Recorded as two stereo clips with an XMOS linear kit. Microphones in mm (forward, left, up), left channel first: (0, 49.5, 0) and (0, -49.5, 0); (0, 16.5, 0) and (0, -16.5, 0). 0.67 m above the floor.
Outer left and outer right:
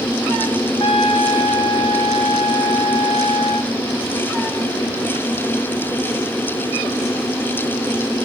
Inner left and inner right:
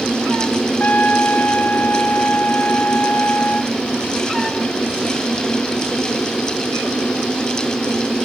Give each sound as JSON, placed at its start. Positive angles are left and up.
{"t": 0.8, "sound": "a trumpet", "side_deg": 55, "distance_m": 1.3}